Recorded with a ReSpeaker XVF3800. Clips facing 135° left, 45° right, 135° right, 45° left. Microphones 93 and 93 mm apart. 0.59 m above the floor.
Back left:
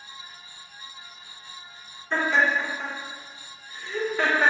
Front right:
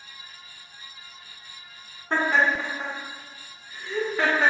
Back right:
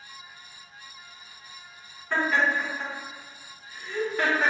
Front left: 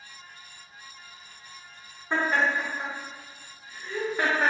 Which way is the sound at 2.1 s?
15° right.